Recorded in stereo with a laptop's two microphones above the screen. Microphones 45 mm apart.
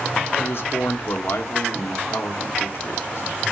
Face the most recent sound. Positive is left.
turn(degrees=65)  # may be behind; listen again after turning